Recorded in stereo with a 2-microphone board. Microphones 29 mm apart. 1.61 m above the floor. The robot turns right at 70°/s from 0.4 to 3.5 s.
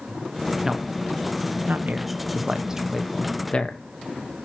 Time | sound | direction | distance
0.6 | a man speaking | 20° right (ahead or behind) | 1.4 m